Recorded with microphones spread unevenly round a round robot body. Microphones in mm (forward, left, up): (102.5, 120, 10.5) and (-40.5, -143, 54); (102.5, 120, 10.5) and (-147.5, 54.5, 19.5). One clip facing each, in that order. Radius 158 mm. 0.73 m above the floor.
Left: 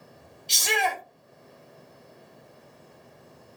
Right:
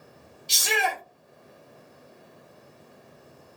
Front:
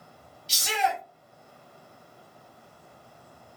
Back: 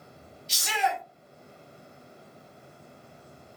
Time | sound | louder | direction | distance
0.5 | a shout | even, front 1 dB | 35° right | 1.1 m